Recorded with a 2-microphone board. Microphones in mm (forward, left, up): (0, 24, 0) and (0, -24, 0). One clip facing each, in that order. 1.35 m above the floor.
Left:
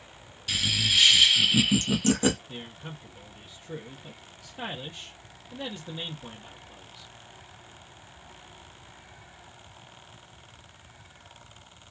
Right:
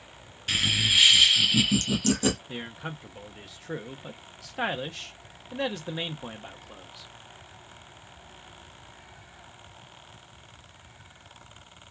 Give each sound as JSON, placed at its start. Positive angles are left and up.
{"t": 0.5, "sound": "laughter", "side_deg": -35, "distance_m": 0.5}
{"t": 2.5, "sound": "a man speaking", "side_deg": -80, "distance_m": 0.7}